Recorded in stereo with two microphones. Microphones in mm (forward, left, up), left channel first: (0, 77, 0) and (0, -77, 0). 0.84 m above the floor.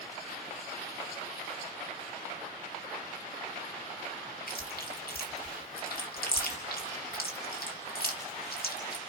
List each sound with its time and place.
4.5 s chewing: 70° left (ahead or behind), 2.5 m